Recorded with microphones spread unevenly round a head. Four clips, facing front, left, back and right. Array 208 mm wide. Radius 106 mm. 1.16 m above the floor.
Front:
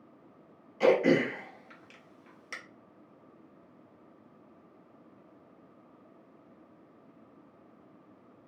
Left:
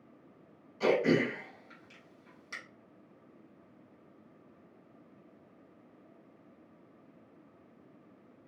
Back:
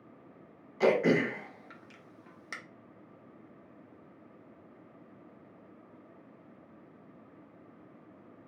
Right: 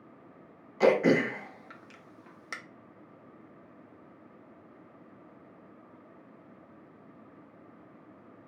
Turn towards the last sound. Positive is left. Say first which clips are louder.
# right 4 dB, front 2 dB
turn(degrees=-95)